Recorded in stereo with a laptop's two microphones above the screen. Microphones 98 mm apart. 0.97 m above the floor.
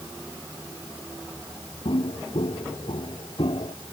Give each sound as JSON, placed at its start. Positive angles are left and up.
{"t": 1.9, "sound": "footsteps", "side_deg": 75}